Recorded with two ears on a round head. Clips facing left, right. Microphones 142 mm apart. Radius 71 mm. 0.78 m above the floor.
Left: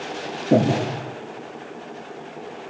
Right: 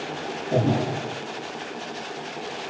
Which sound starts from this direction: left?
Breathing, at 0.5 s.